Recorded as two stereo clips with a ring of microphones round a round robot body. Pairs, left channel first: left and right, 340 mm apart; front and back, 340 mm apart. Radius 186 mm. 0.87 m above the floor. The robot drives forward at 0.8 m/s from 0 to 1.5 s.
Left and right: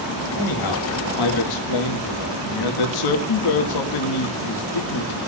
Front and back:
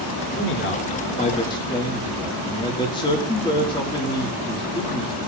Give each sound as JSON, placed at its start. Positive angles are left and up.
{"t": 0.3, "sound": "a man speaking", "azimuth_deg": 55, "distance_m": 2.5}